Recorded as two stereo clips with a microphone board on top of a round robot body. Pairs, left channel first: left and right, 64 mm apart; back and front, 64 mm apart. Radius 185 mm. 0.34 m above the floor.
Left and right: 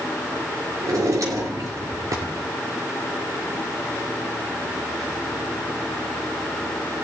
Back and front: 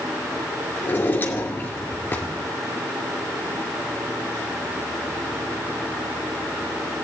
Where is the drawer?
120° right, 2.5 m.